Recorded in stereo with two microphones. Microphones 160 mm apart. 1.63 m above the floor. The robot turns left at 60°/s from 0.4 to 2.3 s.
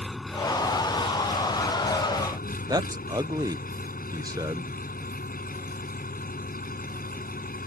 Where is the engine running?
Straight behind; by 7.7 s 65° left.